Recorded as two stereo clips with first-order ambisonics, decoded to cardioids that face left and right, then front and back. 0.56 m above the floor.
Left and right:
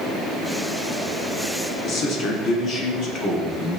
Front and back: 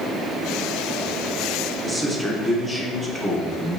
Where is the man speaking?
85° left, 0.7 m.